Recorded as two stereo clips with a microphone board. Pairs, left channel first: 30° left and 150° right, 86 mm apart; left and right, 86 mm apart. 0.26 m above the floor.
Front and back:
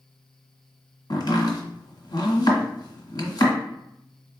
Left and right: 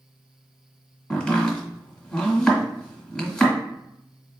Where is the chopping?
15° left, 1.6 m.